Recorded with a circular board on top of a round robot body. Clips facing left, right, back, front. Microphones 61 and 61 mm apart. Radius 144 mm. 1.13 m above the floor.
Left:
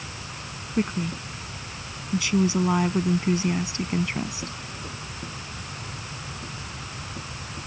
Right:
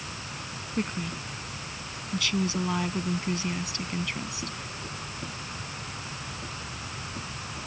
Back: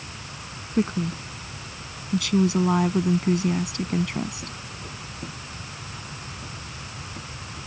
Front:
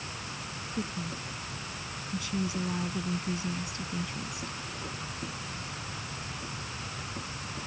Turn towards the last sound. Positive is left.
turn(degrees=155)